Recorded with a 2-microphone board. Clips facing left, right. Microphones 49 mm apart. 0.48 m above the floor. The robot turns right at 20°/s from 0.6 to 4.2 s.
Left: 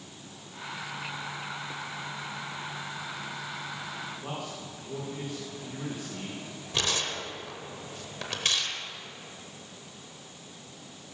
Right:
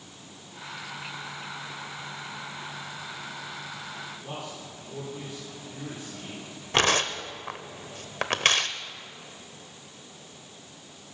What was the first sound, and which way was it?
A man speaking, 45° left (ahead or behind).